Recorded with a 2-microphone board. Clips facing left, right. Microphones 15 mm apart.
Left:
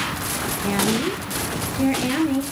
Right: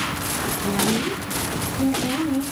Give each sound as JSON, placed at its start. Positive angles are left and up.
{"t": 0.6, "sound": "a woman speaking", "side_deg": 60, "distance_m": 2.5}